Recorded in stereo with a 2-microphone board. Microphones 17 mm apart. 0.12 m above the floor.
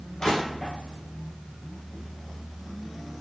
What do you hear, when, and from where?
0.2 s crushing: 40° left (ahead or behind), 2 m